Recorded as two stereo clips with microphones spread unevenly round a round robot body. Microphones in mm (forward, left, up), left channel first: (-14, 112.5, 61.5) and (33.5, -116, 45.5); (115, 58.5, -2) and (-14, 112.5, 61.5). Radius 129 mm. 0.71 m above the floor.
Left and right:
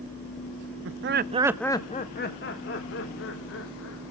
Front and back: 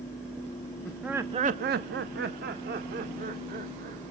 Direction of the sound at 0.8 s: 85° right.